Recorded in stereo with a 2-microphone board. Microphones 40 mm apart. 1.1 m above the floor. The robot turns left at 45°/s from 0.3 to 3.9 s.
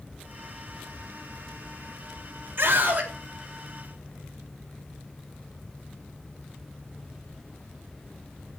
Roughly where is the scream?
Right.